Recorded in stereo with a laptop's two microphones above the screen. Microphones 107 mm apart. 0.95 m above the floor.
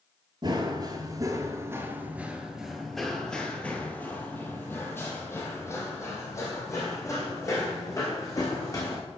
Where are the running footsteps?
45° right (ahead or behind), 1.2 m; by 9.0 s 30° left (ahead or behind), 4 m.